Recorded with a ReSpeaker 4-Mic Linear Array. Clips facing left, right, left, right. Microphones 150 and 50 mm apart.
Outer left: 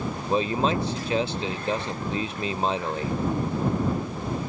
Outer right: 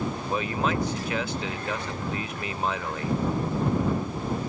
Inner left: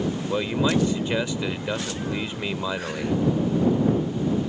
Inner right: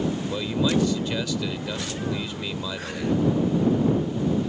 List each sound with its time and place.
0.3 s a man speaking: 30° left (ahead or behind)